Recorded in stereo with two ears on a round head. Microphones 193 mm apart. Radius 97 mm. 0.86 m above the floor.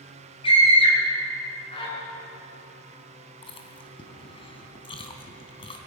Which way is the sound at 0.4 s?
30° left (ahead or behind).